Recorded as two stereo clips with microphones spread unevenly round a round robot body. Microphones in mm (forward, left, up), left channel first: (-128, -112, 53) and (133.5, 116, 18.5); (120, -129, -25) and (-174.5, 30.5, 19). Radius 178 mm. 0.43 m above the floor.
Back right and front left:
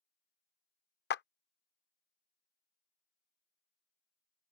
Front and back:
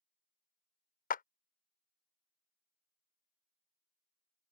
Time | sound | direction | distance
1.1 | a clap | 80° right | ?